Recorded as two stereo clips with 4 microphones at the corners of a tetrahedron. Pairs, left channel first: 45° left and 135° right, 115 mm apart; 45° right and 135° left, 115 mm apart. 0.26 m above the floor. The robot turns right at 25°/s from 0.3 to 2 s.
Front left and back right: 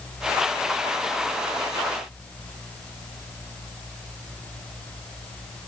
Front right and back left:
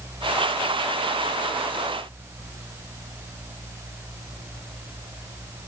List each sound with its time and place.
Only background noise.